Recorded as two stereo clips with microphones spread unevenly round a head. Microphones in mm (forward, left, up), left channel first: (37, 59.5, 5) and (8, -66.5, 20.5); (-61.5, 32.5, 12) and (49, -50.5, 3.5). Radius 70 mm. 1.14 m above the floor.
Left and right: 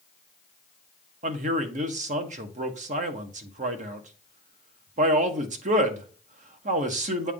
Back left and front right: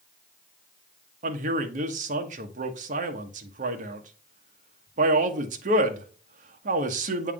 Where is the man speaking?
70° right, 1.2 m.